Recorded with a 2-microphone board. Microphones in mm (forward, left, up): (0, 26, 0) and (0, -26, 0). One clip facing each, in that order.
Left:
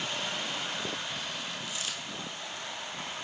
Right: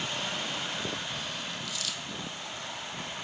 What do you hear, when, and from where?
1.6 s a dropped coin: 25° left (ahead or behind), 1.5 m